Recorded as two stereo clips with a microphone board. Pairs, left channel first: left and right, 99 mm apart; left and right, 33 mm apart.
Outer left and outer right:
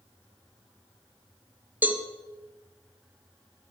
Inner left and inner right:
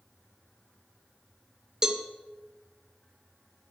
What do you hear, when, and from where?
1.8 s a cowbell: 15° right (ahead or behind), 0.6 m